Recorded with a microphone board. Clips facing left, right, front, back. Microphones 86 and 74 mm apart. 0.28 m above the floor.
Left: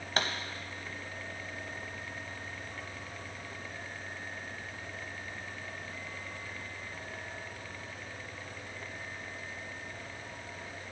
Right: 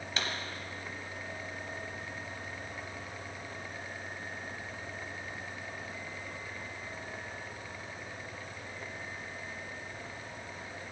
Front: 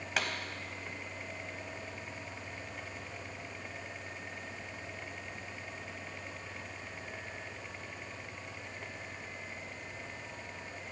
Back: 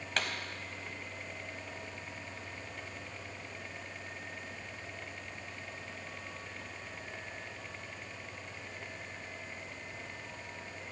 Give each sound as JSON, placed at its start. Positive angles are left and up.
{"t": 0.2, "sound": "a pop", "azimuth_deg": 80, "distance_m": 0.9}